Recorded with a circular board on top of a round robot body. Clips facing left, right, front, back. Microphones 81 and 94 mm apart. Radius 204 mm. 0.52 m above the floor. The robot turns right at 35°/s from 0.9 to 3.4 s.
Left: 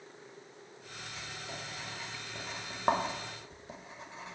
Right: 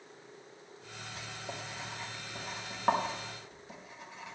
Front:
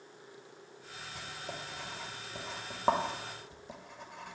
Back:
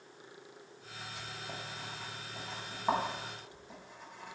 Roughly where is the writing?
Ahead right.